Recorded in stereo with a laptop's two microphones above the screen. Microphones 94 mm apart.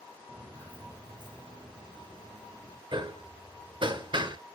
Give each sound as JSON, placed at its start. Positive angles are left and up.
{"t": 0.3, "sound": "footsteps", "side_deg": -35, "distance_m": 1.6}
{"t": 2.9, "sound": "hammering", "side_deg": -55, "distance_m": 0.9}